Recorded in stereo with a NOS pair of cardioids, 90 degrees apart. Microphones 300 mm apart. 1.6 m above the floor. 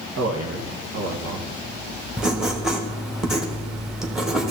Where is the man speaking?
60° right, 1.5 m.